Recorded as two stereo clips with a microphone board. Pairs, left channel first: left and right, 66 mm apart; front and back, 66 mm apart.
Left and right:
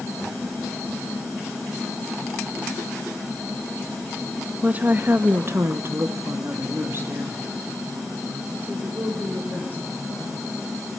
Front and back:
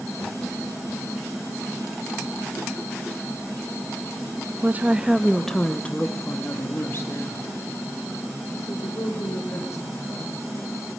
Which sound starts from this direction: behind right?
A woman speaking, at 4.6 s.